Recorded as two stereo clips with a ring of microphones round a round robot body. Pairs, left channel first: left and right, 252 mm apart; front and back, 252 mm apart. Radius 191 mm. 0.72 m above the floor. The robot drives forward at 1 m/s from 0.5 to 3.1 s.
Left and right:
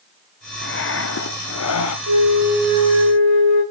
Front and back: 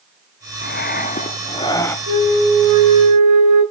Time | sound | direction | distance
0.6 | breathing | 50° left | 2.5 m
2.1 | a flute | 135° right | 7.5 m